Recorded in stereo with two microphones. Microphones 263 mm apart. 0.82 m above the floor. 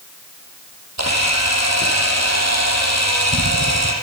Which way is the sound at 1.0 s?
80° right.